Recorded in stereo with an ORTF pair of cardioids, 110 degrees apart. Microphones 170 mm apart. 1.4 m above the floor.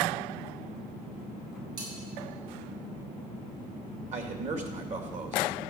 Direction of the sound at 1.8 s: 60° right.